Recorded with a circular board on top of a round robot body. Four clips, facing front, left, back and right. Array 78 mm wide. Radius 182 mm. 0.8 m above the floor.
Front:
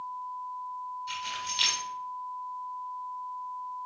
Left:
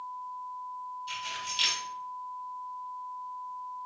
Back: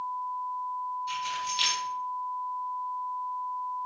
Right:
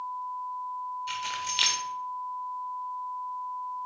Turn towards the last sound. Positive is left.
turn(degrees=-85)